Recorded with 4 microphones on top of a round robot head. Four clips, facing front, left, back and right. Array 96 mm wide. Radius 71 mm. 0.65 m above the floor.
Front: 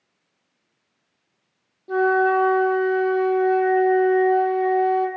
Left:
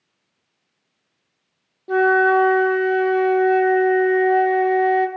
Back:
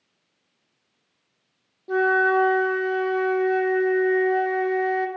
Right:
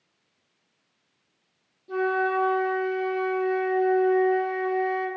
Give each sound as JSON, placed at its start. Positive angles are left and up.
{"t": 1.9, "sound": "a flute", "azimuth_deg": 100, "distance_m": 1.2}